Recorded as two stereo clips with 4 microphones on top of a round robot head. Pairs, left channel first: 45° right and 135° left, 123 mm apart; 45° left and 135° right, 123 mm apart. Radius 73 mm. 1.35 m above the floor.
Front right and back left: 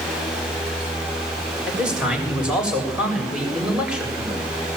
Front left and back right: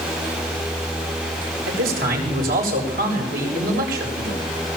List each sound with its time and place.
1.7 s a man speaking: 140° right, 7 m